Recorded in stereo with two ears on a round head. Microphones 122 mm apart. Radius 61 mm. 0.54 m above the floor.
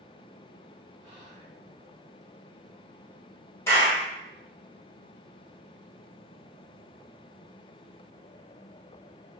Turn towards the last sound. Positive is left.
turn(degrees=20)  # may be behind; listen again after turning